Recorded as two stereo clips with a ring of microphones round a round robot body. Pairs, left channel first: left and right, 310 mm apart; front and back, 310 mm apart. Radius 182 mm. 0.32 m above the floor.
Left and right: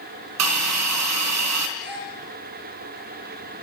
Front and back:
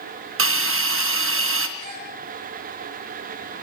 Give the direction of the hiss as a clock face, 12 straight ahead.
4 o'clock.